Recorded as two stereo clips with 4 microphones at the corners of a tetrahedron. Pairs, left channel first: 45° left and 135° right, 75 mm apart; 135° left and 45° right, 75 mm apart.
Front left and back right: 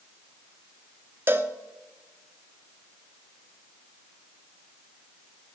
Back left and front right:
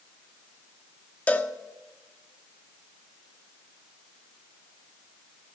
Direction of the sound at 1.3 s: 170° right.